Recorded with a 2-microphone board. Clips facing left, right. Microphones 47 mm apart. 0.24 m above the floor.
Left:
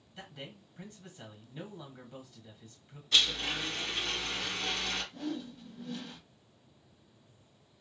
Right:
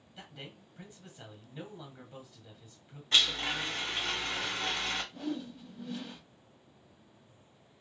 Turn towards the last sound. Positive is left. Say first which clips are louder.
# right 1 dB
turn(degrees=-5)  # may be behind; listen again after turning